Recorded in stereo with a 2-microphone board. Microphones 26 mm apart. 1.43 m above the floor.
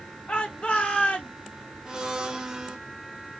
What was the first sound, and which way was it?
A shout, 50° left (ahead or behind).